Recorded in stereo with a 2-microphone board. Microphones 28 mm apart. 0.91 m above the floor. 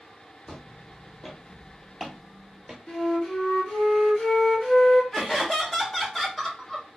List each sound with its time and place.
0.5 s footsteps: 25° left (ahead or behind), 1.4 m; by 2.8 s 20° right (ahead or behind), 0.9 m
2.9 s a flute: 35° left (ahead or behind), 1.2 m
5.1 s laughter: 10° left (ahead or behind), 1.1 m